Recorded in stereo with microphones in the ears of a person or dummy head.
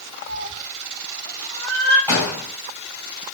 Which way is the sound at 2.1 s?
15° right (ahead or behind).